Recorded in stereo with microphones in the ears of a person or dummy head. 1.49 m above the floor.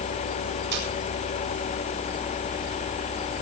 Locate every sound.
0.7 s a camera shutter: 55° right (ahead or behind), 7.5 m